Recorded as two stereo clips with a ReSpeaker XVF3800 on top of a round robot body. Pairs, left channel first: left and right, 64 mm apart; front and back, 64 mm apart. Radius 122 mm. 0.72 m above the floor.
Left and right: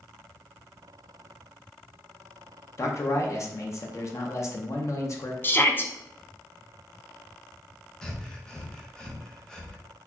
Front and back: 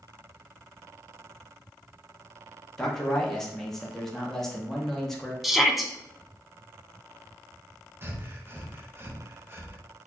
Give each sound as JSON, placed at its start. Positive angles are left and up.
{"t": 2.8, "sound": "a man speaking", "azimuth_deg": 80, "distance_m": 1.0}
{"t": 5.4, "sound": "a shout", "azimuth_deg": 95, "distance_m": 0.8}
{"t": 8.0, "sound": "breathing", "azimuth_deg": 165, "distance_m": 1.0}